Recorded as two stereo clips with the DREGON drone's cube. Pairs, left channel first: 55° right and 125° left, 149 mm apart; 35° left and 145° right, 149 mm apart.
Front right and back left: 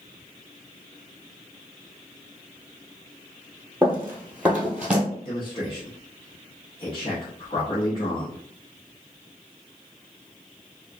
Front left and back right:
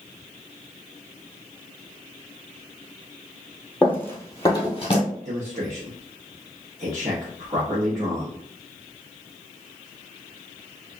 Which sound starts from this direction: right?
A man speaking, at 5.2 s.